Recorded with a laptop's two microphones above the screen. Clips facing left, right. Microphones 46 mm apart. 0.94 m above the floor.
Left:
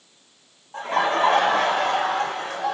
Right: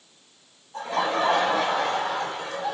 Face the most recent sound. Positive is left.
turn(degrees=70)  # may be behind; listen again after turning